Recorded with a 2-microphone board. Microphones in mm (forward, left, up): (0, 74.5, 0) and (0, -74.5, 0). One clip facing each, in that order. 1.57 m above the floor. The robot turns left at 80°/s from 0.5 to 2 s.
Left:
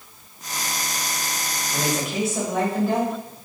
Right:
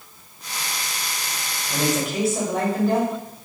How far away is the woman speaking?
About 2 m.